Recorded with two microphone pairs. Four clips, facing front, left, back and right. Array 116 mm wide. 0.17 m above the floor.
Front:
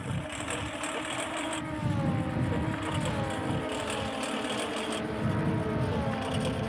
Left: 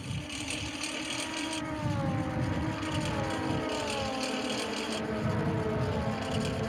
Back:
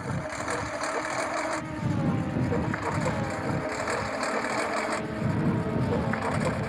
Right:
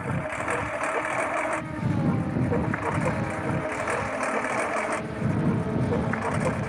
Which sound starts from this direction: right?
A lawn mower, at 0.0 s.